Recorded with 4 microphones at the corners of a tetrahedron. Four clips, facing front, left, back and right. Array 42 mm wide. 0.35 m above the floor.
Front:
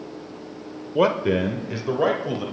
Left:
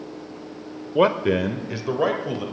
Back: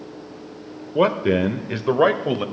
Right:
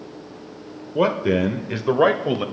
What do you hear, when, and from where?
0.9 s a man speaking: 105° left, 0.8 m; by 2.5 s 135° right, 1.2 m